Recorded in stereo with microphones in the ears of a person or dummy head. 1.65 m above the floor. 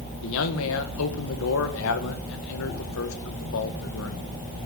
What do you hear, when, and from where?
0.2 s a man speaking: 75° left (ahead or behind), 1.6 m